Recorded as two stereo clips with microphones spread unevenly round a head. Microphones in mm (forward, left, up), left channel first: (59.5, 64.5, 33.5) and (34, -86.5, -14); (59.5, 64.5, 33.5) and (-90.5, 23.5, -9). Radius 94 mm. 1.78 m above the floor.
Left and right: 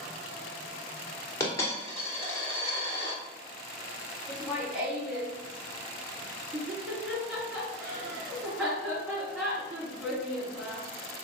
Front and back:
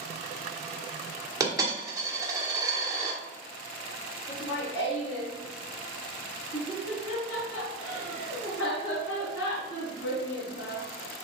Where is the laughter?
10° right, 3.5 m.